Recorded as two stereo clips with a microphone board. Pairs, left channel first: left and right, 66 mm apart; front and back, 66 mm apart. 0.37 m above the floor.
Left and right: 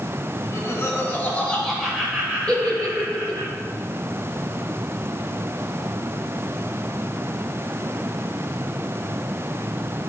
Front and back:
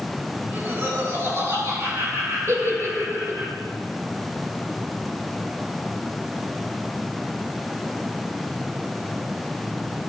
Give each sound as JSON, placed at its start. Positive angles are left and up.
{"t": 0.4, "sound": "laughter", "azimuth_deg": 125, "distance_m": 2.5}
{"t": 2.5, "sound": "a giggle", "azimuth_deg": 160, "distance_m": 1.3}